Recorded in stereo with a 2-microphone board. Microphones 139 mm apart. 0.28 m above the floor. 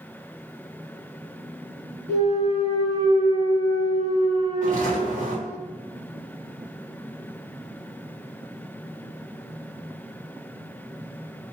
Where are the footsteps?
65° right (ahead or behind), 1.7 m.